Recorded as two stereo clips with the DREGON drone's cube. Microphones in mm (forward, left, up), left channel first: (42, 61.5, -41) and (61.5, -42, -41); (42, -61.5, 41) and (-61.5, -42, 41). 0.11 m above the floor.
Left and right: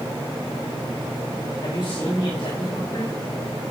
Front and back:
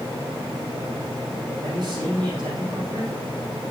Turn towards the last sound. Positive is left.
turn(degrees=130)